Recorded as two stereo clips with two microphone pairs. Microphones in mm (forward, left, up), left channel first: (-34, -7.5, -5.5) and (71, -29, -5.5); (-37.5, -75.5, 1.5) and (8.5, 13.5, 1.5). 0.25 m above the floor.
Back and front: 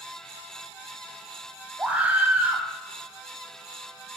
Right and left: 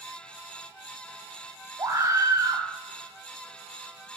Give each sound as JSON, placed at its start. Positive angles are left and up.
{"t": 1.8, "sound": "a scream", "azimuth_deg": 50, "distance_m": 1.7}